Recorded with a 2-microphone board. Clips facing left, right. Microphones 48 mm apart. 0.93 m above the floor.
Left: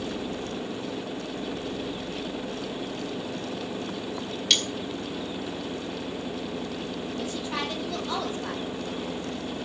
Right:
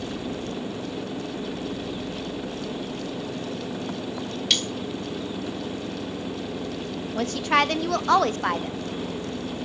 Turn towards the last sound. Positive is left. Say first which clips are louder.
# right 12 dB
turn(degrees=-70)  # may be behind; listen again after turning